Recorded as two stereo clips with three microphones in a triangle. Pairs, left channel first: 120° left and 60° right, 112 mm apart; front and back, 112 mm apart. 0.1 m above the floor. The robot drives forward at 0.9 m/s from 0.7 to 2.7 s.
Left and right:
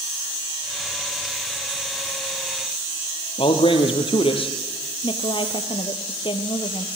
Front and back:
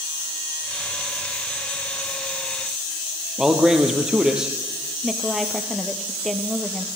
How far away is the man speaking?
About 3 m.